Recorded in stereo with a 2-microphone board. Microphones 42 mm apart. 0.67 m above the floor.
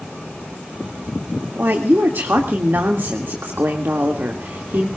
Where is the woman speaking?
60° right (ahead or behind), 2 m.